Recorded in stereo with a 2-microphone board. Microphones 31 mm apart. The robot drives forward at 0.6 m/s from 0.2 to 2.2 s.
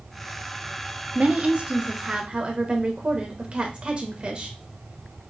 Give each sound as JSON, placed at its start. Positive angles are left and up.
{"t": 1.1, "sound": "a woman speaking", "side_deg": -35, "distance_m": 0.8}